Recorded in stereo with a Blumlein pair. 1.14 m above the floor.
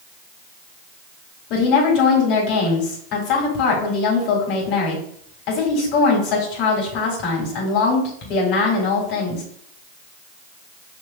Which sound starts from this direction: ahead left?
A woman speaking, at 1.5 s.